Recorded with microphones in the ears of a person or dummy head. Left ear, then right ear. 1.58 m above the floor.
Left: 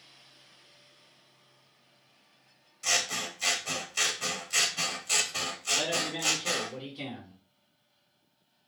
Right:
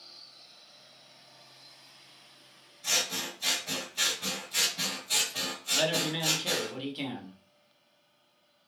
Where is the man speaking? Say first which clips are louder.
Right 3 dB; 35° right (ahead or behind), 0.9 m.